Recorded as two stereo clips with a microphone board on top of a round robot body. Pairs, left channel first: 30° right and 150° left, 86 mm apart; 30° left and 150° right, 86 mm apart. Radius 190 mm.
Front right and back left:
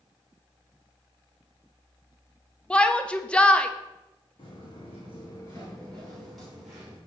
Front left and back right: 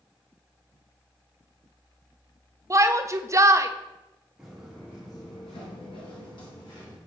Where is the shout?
105° right, 0.8 m.